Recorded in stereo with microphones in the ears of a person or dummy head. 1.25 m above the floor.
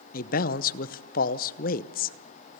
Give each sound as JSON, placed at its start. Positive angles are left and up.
{"t": 0.1, "sound": "a man speaking", "side_deg": 50, "distance_m": 0.8}